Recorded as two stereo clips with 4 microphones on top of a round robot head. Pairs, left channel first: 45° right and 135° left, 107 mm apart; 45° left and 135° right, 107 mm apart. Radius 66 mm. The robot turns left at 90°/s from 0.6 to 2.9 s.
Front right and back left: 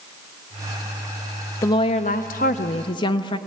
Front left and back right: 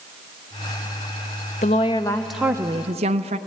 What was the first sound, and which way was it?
A woman speaking, 20° left.